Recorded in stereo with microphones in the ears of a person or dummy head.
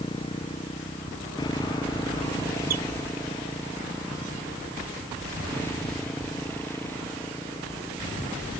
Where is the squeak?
50° right (ahead or behind).